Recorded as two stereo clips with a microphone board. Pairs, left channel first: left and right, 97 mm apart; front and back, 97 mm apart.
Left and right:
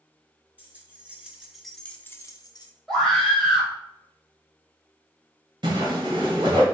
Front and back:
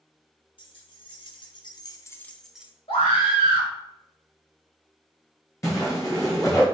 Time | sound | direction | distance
0.6 | keys jangling | 20° right | 1.5 m
2.9 | a scream | straight ahead | 2.5 m
5.6 | a whoosh | 55° right | 1.9 m